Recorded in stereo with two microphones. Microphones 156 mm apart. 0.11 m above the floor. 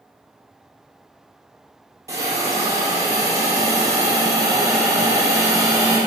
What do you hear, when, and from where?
2.1 s a hiss: 20° right (ahead or behind), 2.0 m